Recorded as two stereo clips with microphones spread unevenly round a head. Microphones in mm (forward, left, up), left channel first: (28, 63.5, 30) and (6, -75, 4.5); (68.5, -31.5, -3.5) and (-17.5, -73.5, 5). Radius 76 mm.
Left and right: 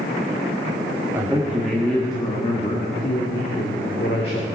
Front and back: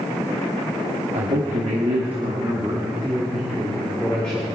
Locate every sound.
1.1 s a man speaking: 170° right, 1.7 m; by 4.5 s 105° left, 3 m